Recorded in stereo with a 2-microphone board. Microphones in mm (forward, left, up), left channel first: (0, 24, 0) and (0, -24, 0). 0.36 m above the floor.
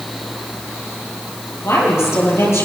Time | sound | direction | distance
1.6 | a woman speaking | 65° left (ahead or behind) | 8.5 m